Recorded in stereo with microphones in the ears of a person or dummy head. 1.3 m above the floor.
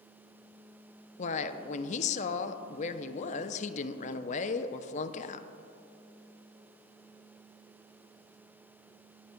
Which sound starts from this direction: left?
A woman speaking, at 1.2 s.